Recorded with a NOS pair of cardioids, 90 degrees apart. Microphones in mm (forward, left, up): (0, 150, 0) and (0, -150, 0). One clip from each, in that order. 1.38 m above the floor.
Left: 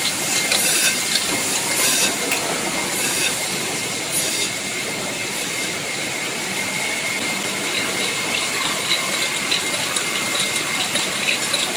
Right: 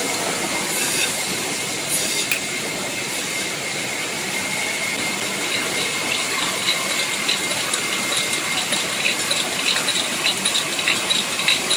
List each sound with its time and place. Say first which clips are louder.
2.3 s a finger snap: left 1 dB; 35° right, 5 m